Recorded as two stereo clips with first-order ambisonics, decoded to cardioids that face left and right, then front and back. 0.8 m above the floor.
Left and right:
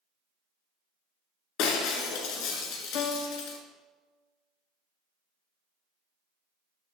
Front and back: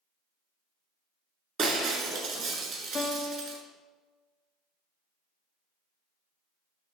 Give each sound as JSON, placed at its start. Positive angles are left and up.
{"t": 1.6, "sound": "breaking glass", "azimuth_deg": 120, "distance_m": 1.5}
{"t": 2.9, "sound": "a piano", "azimuth_deg": 65, "distance_m": 1.0}